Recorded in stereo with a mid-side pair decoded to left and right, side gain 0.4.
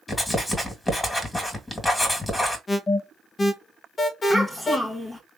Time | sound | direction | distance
0.1 | writing | 25° left | 2 m
2.7 | an alarm | 45° left | 1.3 m
4.3 | a child speaking | 40° left | 1.3 m